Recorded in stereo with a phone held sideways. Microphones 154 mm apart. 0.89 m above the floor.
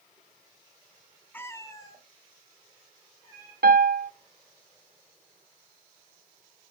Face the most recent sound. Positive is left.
turn(degrees=-85)